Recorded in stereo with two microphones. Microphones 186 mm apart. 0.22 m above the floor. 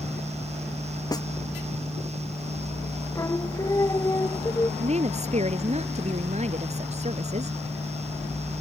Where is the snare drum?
20° left (ahead or behind).